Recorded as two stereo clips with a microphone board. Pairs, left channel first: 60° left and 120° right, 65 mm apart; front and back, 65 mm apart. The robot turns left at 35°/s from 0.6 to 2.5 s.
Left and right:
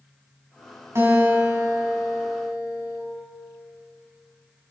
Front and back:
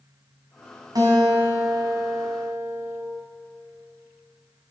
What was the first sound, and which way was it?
A guitar, 165° right.